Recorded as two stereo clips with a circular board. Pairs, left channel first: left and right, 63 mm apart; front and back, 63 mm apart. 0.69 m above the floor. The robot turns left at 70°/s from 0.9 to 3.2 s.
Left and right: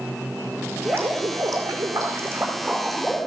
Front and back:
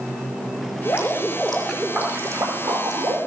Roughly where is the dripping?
Ahead right.